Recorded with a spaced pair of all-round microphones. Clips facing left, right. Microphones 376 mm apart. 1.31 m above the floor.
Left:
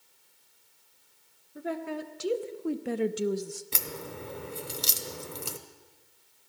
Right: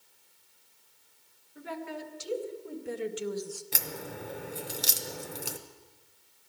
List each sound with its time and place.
1.6 s a woman speaking: 60° left (ahead or behind), 1.2 m; by 3.6 s 30° left (ahead or behind), 0.6 m
3.7 s a crack: 10° left (ahead or behind), 0.7 m